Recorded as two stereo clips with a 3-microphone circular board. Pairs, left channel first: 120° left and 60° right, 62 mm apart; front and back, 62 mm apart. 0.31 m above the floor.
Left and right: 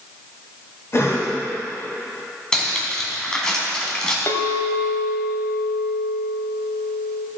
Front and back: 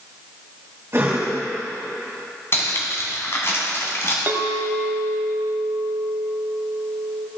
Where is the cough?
145° left, 2.5 m.